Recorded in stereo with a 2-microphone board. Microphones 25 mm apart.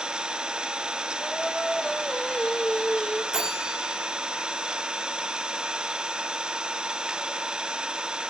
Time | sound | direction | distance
0.0 | an engine running | 35° right (ahead or behind) | 0.8 m
1.2 | singing | 30° left (ahead or behind) | 1.3 m
3.3 | a bell | 30° right (ahead or behind) | 4 m